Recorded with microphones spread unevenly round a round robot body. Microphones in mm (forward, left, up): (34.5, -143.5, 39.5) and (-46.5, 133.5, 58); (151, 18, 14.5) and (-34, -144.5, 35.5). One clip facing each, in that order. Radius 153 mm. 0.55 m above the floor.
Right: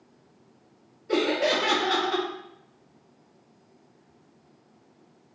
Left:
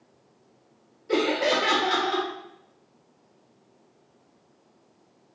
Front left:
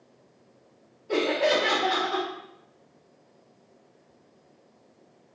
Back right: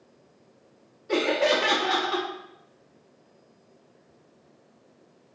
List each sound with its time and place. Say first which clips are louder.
1.1 s laughter: left 1 dB, even; 165° right, 0.6 m